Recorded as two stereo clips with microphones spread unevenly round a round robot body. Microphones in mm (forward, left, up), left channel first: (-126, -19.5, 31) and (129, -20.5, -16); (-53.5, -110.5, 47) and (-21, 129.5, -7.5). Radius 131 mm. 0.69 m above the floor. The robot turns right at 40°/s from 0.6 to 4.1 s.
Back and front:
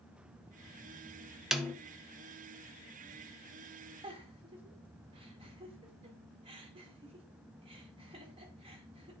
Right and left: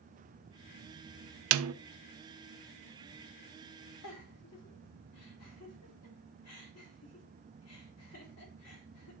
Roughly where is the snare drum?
Left.